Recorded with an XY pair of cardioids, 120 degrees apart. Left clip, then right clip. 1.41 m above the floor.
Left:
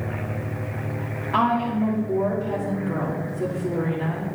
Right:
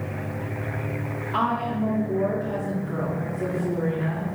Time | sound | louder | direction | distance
1.3 | a woman speaking | left 3 dB | 70° left | 3.5 m